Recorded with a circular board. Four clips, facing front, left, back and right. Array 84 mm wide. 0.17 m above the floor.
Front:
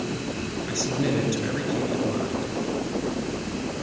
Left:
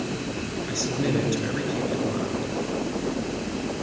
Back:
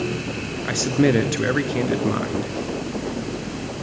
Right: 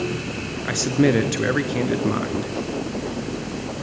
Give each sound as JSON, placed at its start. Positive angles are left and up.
{"t": 0.7, "sound": "a man speaking", "azimuth_deg": -135, "distance_m": 2.5}